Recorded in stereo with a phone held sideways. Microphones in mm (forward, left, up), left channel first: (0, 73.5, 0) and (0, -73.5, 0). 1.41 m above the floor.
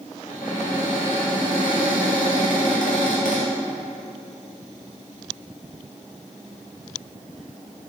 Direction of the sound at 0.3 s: 70° left (ahead or behind).